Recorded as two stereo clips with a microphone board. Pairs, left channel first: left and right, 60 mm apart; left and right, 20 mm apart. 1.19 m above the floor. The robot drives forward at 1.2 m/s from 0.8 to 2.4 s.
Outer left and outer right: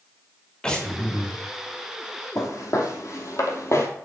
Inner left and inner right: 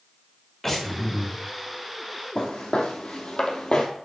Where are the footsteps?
60° left (ahead or behind), 3 m; by 3.9 s 50° left (ahead or behind), 1.9 m.